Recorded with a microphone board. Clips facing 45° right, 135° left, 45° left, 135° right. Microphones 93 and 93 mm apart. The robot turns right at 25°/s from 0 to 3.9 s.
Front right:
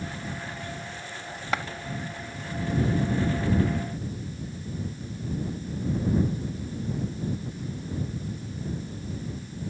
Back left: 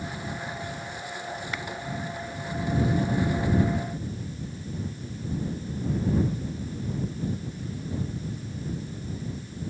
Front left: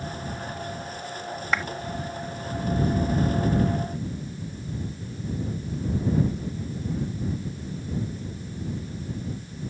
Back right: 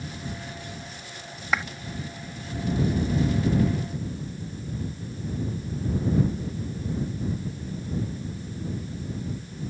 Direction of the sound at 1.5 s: 45° right.